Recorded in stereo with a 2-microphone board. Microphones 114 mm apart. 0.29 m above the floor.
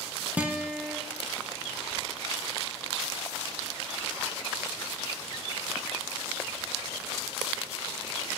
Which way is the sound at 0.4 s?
15° right (ahead or behind).